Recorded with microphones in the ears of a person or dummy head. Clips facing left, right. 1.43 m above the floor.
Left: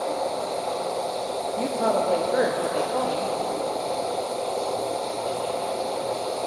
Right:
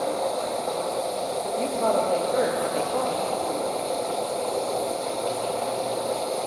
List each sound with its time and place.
0.0 s a machine running: 25° right (ahead or behind), 1.8 m
1.6 s a woman speaking: 15° left (ahead or behind), 1.0 m